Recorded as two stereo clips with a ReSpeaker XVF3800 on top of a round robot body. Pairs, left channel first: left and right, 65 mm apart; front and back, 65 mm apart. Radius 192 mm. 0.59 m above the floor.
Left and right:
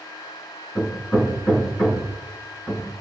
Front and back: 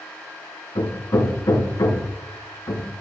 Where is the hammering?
35° left, 6 m.